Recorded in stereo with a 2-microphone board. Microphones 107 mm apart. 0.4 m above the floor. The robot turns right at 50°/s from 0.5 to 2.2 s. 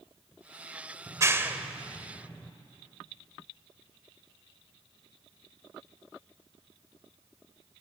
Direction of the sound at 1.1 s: 35° right (ahead or behind).